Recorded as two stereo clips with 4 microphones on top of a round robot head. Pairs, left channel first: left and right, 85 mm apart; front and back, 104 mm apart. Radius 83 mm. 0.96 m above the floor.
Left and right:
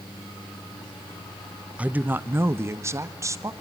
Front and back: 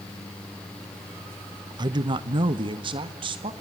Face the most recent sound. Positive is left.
turn(degrees=-140)